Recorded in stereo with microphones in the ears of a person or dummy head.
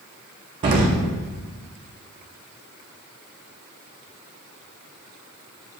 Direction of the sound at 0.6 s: 30° right (ahead or behind).